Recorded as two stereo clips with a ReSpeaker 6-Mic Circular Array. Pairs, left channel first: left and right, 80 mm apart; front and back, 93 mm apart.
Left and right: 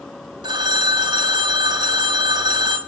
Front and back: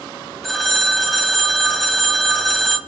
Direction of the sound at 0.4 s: 90° right.